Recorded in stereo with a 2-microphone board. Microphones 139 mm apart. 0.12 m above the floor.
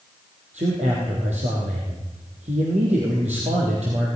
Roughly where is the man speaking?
Right.